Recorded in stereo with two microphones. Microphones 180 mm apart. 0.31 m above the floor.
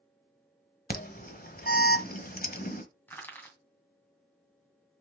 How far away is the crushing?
About 2 m.